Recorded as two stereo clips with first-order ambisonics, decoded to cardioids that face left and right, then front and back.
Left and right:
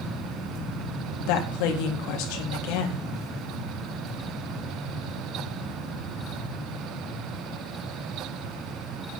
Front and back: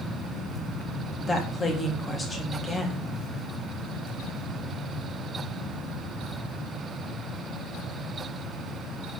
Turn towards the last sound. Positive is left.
turn(degrees=75)